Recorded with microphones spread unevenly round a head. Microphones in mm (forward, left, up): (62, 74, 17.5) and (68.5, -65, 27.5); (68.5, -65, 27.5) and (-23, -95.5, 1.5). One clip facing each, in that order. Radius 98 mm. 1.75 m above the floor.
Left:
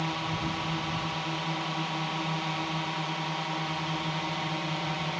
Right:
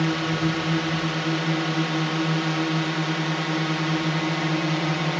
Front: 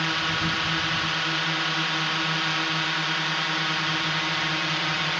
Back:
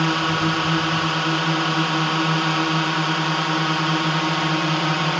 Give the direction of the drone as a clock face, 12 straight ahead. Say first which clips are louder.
Right 9 dB, back 7 dB; 4 o'clock.